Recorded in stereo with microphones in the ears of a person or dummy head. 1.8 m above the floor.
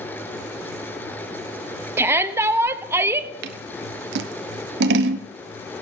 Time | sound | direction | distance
2.0 | a shout | 15° right (ahead or behind) | 0.9 m
3.4 | scissors | 65° right (ahead or behind) | 0.9 m